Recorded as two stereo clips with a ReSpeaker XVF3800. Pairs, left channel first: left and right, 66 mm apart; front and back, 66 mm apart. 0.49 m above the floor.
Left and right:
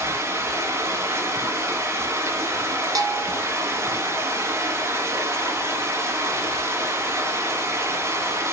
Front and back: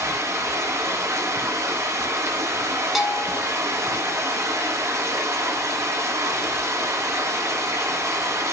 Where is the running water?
140° right, 2.5 m.